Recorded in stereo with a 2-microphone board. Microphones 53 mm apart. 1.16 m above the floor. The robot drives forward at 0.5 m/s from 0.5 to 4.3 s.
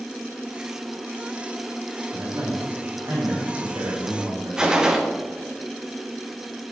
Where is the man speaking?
70° right (ahead or behind), 2.5 m; by 4.6 s 80° right, 2 m.